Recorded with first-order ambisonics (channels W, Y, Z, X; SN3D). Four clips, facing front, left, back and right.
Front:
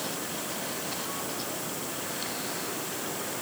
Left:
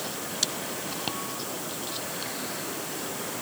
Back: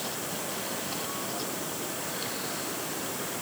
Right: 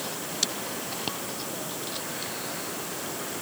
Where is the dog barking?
I don't hear a dog barking.